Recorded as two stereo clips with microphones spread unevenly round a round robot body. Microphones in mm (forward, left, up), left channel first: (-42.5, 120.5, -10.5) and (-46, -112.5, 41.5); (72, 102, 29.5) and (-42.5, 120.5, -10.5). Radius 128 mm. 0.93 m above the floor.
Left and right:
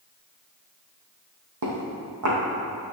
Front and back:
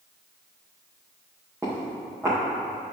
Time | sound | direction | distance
1.6 | footsteps | 90° right | 2.5 m